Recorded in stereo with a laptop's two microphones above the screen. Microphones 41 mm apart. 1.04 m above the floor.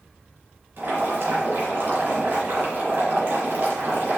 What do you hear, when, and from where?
0.8 s boiling: 65° right (ahead or behind), 2.5 m